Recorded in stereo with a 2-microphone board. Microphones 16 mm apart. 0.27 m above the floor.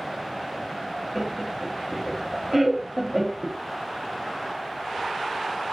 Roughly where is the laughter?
Centre.